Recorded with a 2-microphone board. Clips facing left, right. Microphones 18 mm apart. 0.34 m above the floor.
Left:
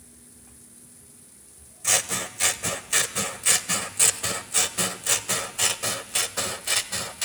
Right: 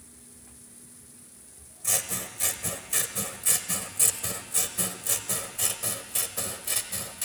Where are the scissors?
35° left (ahead or behind), 0.8 m.